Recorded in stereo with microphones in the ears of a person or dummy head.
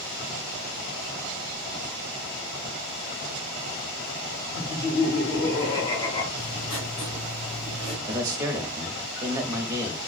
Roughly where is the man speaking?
Centre.